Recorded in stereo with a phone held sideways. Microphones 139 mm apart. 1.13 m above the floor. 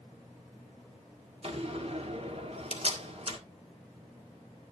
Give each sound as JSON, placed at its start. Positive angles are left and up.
{"t": 1.4, "sound": "a door slam", "side_deg": -50, "distance_m": 1.7}